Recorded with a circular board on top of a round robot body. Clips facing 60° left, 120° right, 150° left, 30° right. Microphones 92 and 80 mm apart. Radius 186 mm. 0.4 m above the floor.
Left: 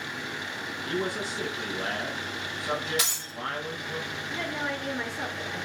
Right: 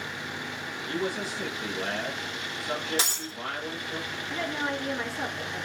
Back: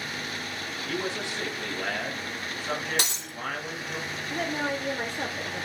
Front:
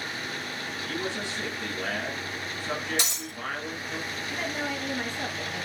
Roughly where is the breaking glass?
Behind.